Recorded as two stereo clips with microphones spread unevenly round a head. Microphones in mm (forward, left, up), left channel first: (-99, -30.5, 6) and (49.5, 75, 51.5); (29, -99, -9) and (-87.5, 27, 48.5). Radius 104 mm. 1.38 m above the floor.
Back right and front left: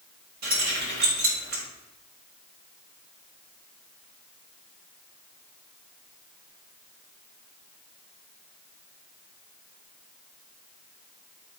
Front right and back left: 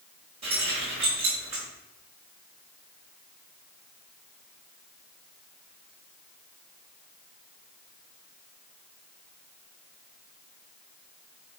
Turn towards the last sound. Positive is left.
turn(degrees=70)